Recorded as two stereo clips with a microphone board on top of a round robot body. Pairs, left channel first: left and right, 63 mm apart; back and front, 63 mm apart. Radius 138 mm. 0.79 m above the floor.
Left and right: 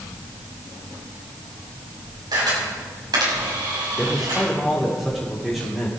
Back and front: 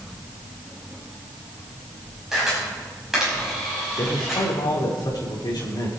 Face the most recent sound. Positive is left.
turn(degrees=180)